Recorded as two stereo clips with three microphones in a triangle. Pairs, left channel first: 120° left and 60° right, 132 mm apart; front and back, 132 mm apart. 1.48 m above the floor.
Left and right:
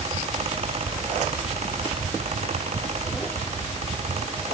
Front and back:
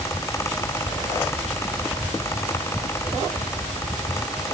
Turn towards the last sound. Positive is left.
No sound to turn to.